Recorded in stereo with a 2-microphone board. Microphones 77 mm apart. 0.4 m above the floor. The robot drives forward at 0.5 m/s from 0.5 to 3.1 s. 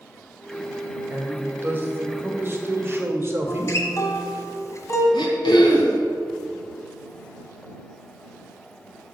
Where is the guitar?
40° left (ahead or behind), 1.3 m.